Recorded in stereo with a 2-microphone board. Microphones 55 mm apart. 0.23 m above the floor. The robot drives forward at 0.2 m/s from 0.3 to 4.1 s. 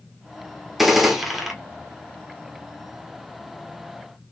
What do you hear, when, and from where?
0.8 s a gunshot: 5° right (ahead or behind), 0.8 m